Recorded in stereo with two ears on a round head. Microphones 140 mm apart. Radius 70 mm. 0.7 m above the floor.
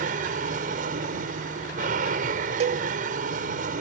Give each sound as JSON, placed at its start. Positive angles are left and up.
{"t": 0.0, "sound": "an aircraft", "side_deg": -55}
{"t": 2.6, "sound": "a cowbell", "side_deg": -40}